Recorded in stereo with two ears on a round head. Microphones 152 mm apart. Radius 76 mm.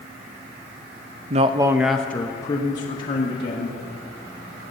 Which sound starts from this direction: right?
A man speaking, at 1.3 s.